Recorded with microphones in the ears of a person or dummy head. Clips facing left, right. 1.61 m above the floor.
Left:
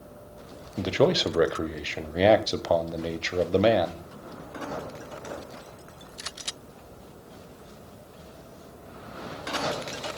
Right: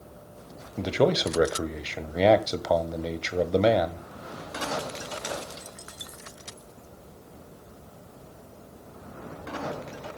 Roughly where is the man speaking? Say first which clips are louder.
Left 1 dB; centre.